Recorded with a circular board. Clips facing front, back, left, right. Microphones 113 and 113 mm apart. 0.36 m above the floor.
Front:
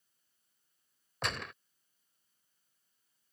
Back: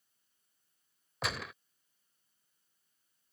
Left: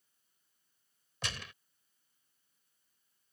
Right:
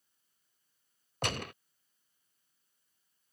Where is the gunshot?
95° right.